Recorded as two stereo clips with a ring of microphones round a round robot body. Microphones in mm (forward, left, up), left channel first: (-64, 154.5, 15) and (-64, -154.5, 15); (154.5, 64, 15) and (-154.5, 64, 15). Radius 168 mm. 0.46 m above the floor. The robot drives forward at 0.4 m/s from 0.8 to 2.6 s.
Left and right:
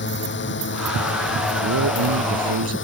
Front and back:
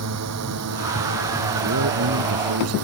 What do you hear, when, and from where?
0.0 s a drone: 145° left; by 2.9 s 140° left
1.6 s a man speaking: 130° right